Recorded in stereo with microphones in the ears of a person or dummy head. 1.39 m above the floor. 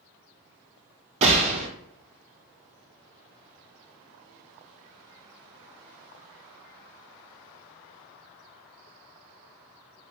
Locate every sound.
1.2 s a gunshot: 35° right (ahead or behind), 0.8 m